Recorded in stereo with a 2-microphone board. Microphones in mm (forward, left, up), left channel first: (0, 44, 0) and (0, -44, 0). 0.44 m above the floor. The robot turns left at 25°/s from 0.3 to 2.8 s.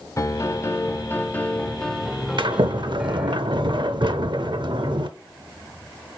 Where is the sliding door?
60° right (ahead or behind), 0.7 m.